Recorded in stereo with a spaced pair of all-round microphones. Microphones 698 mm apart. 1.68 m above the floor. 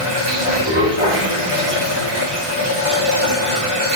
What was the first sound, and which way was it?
Running water, 50° right (ahead or behind).